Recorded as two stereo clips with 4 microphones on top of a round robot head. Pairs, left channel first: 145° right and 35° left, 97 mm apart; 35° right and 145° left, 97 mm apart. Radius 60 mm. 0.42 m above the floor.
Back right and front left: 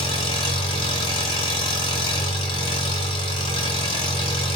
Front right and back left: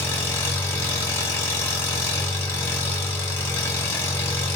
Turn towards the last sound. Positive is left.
turn(degrees=-105)